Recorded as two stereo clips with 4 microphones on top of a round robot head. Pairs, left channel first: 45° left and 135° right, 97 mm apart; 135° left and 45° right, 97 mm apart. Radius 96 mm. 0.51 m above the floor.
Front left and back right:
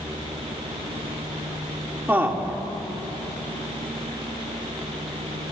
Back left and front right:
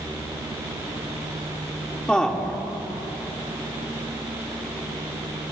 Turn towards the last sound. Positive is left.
turn(degrees=-155)